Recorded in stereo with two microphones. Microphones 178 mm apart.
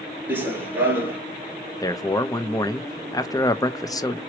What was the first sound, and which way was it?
Running footsteps, 10° right (ahead or behind).